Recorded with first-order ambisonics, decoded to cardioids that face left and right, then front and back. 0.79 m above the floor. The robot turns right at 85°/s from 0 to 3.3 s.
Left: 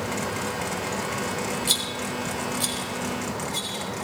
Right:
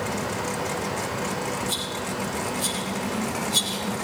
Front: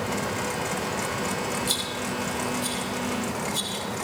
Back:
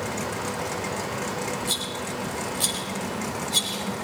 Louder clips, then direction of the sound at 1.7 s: Left 2 dB, front 1 dB; 75° left.